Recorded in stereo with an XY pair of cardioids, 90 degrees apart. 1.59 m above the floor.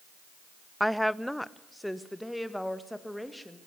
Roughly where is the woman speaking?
Ahead.